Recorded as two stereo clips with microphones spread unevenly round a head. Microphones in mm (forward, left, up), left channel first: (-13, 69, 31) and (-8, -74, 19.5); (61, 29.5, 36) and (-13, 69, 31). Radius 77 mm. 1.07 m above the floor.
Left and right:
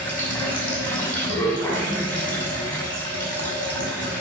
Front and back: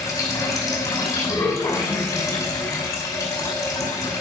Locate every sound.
0.0 s running water: 15° left, 6 m